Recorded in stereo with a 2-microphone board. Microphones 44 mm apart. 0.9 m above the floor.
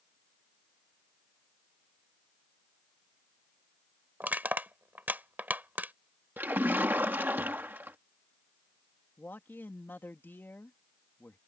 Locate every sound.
4.2 s crushing: 45° right (ahead or behind)
6.4 s a splash: 45° right (ahead or behind)
9.2 s a man speaking: 55° left (ahead or behind)